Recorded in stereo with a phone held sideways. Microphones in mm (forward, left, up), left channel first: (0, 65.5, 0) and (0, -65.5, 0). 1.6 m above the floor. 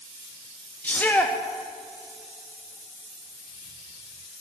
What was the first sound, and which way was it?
A shout, 10° left (ahead or behind).